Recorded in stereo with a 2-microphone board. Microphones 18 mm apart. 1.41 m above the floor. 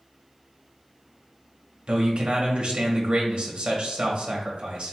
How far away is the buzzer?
I don't hear a buzzer.